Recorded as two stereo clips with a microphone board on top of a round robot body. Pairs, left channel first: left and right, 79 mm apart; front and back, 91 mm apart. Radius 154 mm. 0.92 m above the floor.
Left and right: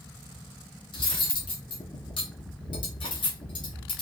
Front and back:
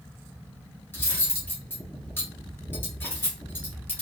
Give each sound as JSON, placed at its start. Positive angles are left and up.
{"t": 0.9, "sound": "cutlery clinking", "azimuth_deg": 70, "distance_m": 1.2}